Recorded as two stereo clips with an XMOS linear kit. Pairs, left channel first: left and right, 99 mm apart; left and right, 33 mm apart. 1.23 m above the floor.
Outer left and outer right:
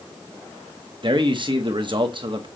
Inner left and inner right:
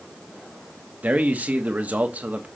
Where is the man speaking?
55° right (ahead or behind), 1.1 m.